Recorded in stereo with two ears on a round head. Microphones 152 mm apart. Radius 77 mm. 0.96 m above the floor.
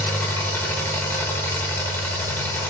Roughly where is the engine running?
Centre.